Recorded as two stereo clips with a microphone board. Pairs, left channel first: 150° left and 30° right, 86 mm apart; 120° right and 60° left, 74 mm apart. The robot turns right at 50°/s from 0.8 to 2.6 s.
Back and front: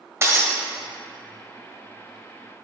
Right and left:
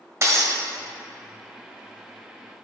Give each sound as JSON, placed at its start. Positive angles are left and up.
{"t": 0.2, "sound": "breaking glass", "azimuth_deg": 20, "distance_m": 1.0}